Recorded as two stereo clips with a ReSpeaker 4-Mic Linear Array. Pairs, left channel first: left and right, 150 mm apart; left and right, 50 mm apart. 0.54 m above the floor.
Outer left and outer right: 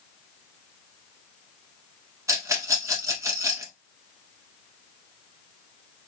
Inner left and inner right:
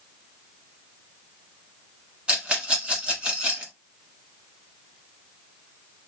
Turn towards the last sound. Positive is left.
turn(degrees=-20)  # may be behind; listen again after turning